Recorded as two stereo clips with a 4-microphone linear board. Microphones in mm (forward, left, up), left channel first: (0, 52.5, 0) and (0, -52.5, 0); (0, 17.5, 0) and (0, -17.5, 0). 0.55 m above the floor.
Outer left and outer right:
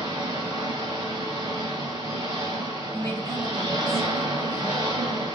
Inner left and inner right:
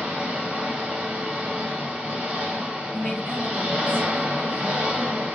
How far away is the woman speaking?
About 1.3 m.